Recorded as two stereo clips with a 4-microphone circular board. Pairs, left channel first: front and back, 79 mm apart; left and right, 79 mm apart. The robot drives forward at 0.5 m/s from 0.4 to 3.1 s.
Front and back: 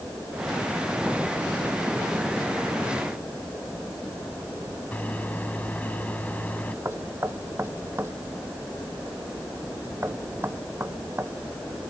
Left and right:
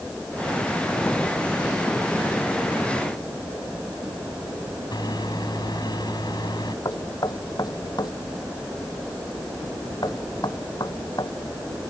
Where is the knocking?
120° left.